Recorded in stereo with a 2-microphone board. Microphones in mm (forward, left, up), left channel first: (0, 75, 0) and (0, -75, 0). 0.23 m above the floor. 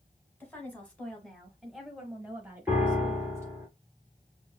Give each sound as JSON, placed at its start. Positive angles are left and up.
{"t": 0.4, "sound": "a woman speaking", "side_deg": 10, "distance_m": 1.6}
{"t": 2.7, "sound": "a piano", "side_deg": -10, "distance_m": 2.5}